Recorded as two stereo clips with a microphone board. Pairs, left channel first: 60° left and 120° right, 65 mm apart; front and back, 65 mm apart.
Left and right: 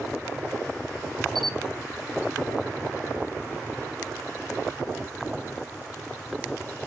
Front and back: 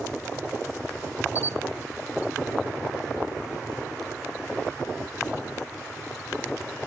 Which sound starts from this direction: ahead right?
A camera shutter, at 1.4 s.